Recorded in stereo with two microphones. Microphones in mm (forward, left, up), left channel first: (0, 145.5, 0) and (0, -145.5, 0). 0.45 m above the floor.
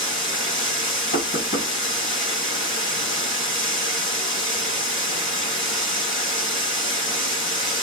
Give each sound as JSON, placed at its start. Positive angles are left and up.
{"t": 0.0, "sound": "running water", "side_deg": 40, "distance_m": 1.6}
{"t": 1.1, "sound": "knocking", "side_deg": 35, "distance_m": 1.7}